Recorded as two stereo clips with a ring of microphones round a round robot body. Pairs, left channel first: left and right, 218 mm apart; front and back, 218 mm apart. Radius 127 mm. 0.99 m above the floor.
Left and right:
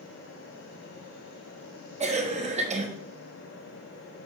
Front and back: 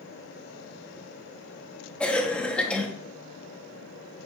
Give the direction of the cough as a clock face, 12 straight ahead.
3 o'clock.